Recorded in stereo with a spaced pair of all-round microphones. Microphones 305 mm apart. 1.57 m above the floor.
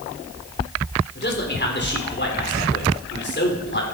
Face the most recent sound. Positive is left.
turn(degrees=35)  # may be behind; listen again after turning